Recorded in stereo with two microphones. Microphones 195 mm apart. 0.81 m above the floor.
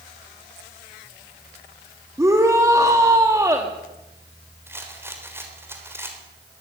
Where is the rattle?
10° right (ahead or behind), 3.5 m.